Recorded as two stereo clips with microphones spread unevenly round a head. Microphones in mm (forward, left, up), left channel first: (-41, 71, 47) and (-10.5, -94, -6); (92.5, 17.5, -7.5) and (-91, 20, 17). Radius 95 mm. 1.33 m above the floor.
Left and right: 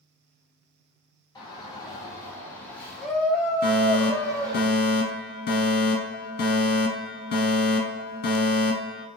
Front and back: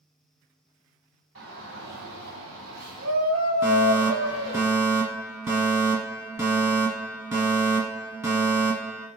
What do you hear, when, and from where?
1.4 s a shout: 170° left, 2.5 m; by 4.6 s 145° right, 1.5 m
3.6 s a fire alarm: 100° left, 1.3 m